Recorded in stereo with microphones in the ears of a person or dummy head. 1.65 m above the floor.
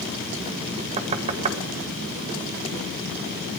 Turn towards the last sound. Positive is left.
turn(degrees=-30)  # may be behind; listen again after turning